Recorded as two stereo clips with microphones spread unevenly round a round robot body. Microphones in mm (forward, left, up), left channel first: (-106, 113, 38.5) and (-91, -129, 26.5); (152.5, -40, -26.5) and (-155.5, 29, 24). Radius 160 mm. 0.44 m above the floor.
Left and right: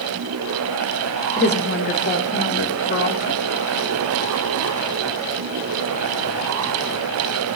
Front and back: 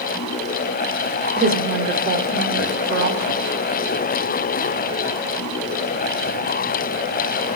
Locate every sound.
1.4 s a woman speaking: 105° left, 1.3 m